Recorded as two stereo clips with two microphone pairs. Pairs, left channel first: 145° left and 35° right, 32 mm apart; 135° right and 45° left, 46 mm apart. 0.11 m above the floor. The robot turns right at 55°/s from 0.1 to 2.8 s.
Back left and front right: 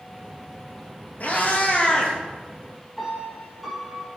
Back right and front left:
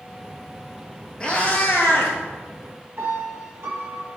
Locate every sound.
1.2 s a cat meowing: 155° left, 1.2 m; by 2.2 s 155° right, 1.2 m
3.0 s a piano: 50° left, 1.4 m